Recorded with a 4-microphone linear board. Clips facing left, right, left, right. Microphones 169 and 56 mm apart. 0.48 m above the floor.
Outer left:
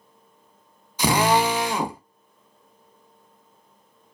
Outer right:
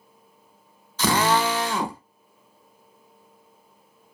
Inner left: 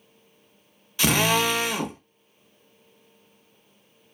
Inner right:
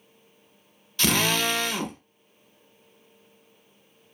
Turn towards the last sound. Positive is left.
turn(degrees=15)  # may be behind; listen again after turning